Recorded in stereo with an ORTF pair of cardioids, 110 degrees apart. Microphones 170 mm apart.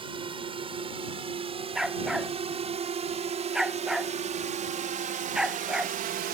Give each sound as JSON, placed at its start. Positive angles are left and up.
{"t": 0.0, "sound": "a drone", "azimuth_deg": -30}
{"t": 1.8, "sound": "a dog barking", "azimuth_deg": -5}